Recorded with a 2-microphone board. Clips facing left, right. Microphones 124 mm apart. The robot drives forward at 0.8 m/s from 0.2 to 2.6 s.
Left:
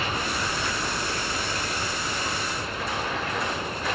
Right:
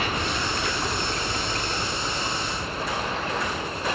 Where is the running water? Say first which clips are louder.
Right 1 dB; 65° right (ahead or behind), 1.1 m; by 4.0 s 30° right (ahead or behind), 1.9 m.